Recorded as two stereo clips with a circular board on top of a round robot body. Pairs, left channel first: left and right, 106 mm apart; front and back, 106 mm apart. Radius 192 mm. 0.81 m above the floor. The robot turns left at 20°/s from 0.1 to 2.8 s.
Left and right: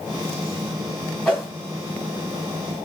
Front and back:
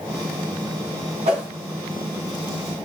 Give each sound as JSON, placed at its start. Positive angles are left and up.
{"t": 1.2, "sound": "a whoosh", "azimuth_deg": 170, "distance_m": 1.5}